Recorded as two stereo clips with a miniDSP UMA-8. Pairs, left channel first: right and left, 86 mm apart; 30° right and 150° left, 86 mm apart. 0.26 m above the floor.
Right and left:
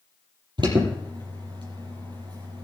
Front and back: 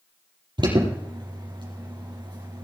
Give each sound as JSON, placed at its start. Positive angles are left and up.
{"t": 0.6, "sound": "an alarm", "azimuth_deg": 120, "distance_m": 6.5}